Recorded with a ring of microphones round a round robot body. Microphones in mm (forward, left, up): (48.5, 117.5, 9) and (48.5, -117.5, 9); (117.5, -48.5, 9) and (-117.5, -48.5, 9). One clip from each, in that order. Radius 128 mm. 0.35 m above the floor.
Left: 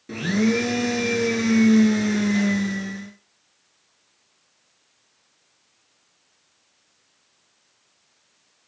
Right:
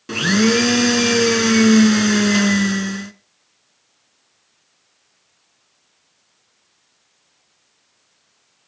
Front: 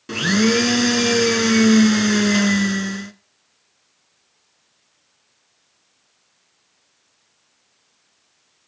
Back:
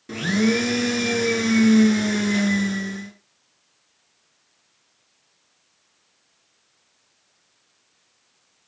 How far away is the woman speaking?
No woman speaking in this recording.